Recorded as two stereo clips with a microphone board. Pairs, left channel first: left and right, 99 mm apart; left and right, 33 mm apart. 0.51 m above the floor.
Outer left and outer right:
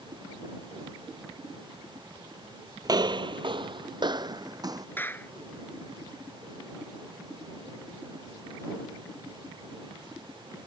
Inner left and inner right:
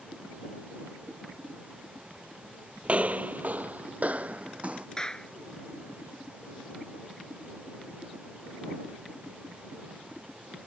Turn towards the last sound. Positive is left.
turn(degrees=20)  # may be behind; listen again after turning